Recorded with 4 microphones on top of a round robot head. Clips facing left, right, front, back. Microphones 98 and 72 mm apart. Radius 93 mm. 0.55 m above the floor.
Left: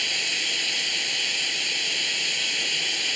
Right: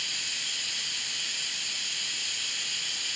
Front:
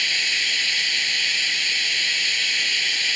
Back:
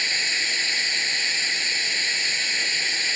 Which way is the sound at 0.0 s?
115° left.